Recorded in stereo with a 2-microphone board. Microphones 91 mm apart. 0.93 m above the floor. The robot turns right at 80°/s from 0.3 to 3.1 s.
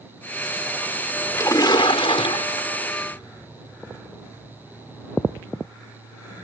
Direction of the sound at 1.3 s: 30° left.